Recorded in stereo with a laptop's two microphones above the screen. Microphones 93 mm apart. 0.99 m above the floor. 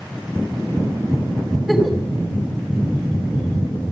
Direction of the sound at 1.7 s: Centre (ahead or behind).